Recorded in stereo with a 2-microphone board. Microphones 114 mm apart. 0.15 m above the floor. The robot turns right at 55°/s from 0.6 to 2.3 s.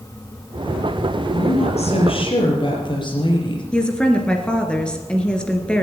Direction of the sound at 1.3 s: 80° left.